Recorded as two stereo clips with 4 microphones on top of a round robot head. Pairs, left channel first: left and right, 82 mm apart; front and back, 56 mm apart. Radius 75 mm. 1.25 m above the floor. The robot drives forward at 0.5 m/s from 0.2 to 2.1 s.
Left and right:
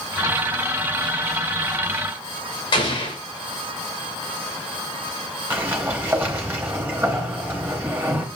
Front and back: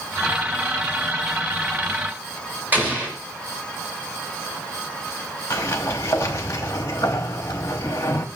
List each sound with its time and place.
2.7 s an explosion: 120° left, 2.5 m
5.5 s a sliding door: 30° right, 0.7 m